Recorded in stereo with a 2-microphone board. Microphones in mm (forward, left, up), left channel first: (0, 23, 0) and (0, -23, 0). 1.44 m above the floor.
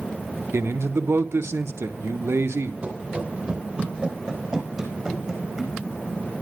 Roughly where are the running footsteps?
Right.